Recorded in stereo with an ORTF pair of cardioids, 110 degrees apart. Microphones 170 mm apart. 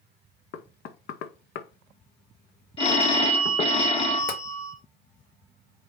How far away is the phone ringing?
About 0.9 m.